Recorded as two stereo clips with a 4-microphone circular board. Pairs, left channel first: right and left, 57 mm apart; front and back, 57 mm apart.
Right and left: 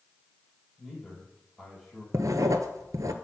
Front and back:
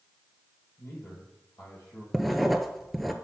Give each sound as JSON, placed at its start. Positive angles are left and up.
{"t": 0.8, "sound": "a man speaking", "azimuth_deg": 5, "distance_m": 5.0}
{"t": 2.1, "sound": "writing", "azimuth_deg": 90, "distance_m": 0.7}